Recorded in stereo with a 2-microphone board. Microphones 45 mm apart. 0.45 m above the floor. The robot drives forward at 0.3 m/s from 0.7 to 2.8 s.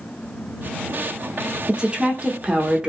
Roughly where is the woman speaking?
Right.